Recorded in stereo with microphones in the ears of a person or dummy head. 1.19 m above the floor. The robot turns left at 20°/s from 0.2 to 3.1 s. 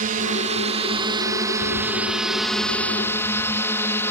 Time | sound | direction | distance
0.0 | a drone | 140° right | ?